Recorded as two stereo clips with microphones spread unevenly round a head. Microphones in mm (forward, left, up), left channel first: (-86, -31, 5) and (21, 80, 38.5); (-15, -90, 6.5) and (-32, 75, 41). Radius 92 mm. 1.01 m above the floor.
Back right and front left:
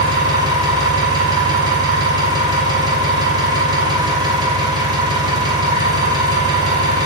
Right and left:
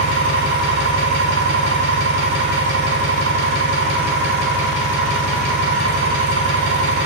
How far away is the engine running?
About 0.7 m.